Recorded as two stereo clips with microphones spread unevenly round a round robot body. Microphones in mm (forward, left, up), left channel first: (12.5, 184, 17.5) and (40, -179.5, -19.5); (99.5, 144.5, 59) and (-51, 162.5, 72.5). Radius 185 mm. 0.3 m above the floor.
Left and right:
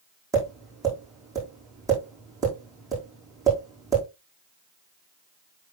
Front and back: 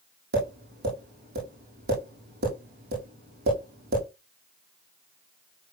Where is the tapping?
165° right, 5 m.